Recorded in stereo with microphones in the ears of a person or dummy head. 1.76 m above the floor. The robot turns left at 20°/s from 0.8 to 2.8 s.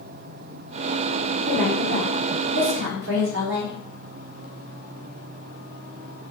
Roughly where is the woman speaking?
Right.